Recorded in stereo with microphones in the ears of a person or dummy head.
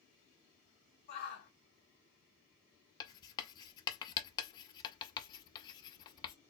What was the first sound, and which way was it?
A shout, 50° left (ahead or behind).